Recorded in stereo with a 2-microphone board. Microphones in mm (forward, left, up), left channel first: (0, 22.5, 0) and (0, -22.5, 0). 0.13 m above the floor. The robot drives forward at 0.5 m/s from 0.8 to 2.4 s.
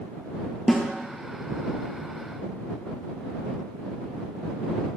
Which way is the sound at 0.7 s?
5° left (ahead or behind).